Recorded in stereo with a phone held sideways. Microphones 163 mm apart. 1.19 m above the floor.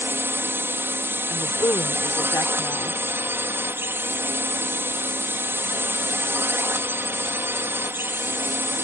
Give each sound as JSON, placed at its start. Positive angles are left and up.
{"t": 0.0, "sound": "a drone", "side_deg": -15}
{"t": 1.3, "sound": "a woman speaking", "side_deg": 20}